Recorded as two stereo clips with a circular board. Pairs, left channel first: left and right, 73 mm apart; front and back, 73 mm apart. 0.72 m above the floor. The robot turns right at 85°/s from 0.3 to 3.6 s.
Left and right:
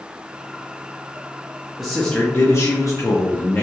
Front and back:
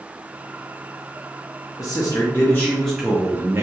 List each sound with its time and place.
1.8 s a man speaking: 10° right, 0.6 m; by 3.6 s 145° left, 0.6 m